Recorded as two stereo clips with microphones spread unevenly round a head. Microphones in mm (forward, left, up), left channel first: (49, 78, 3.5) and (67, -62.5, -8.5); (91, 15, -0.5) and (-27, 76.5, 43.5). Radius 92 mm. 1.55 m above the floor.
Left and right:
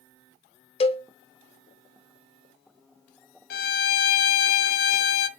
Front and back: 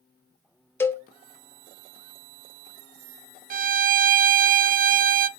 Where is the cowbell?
55° left, 1.1 m.